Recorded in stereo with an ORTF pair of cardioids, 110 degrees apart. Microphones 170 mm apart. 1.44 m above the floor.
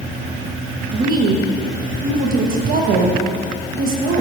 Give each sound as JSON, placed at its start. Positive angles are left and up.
{"t": 0.9, "sound": "a woman speaking", "azimuth_deg": -55, "distance_m": 1.2}